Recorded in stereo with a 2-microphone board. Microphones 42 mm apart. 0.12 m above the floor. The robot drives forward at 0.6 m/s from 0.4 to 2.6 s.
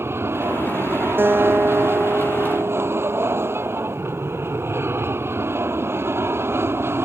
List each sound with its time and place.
0.0 s an aircraft: 70° right (ahead or behind)
1.2 s a guitar: 55° right (ahead or behind); by 3.7 s 60° right (ahead or behind)